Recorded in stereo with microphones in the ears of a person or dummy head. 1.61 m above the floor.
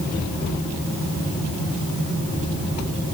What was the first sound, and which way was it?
Only background noise.